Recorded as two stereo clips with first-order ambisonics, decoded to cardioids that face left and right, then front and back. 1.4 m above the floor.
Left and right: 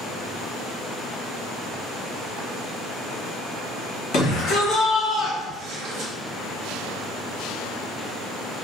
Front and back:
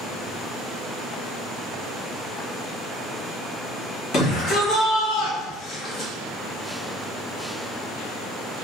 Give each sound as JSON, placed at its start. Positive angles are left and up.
{"t": 4.1, "sound": "a shout", "azimuth_deg": 55, "distance_m": 1.4}